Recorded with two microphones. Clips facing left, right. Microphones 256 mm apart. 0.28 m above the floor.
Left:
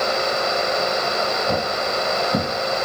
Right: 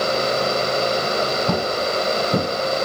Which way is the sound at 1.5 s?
65° right (ahead or behind).